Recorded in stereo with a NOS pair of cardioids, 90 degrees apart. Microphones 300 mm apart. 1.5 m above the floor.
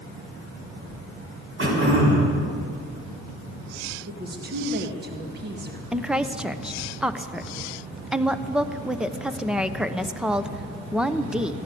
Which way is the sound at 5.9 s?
5° right.